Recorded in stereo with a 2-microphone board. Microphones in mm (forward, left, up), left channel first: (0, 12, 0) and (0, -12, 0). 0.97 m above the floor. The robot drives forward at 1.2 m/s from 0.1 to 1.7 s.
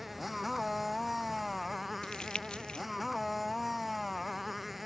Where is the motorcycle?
5° right (ahead or behind).